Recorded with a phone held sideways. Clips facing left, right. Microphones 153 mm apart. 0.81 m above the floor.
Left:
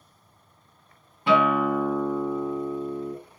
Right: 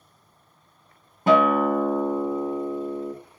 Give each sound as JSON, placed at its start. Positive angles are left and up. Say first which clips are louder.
{"t": 1.3, "sound": "a guitar", "louder": "right 3 dB", "side_deg": -45, "distance_m": 0.5}